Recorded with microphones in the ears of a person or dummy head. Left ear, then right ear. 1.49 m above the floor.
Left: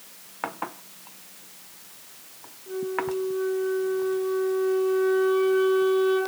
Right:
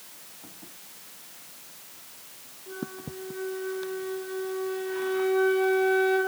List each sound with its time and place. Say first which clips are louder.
2.7 s a flute: left 11 dB; 20° left (ahead or behind), 2.5 m